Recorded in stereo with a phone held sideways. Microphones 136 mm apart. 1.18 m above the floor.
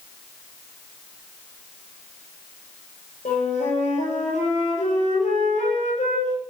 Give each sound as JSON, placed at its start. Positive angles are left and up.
{"t": 3.2, "sound": "a flute", "side_deg": 65, "distance_m": 9.5}